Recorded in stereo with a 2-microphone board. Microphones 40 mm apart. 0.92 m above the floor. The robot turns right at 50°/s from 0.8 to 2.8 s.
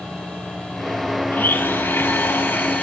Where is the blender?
60° left, 1.8 m; by 2.8 s 135° left, 1.8 m.